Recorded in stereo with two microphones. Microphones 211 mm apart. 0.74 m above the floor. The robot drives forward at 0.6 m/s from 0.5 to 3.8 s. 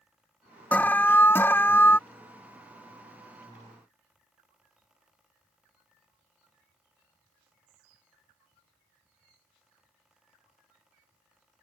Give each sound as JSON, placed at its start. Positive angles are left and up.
{"t": 0.7, "sound": "an alarm", "side_deg": 10}